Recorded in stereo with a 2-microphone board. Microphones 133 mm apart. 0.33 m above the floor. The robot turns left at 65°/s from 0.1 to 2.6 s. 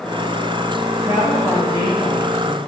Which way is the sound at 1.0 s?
150° right.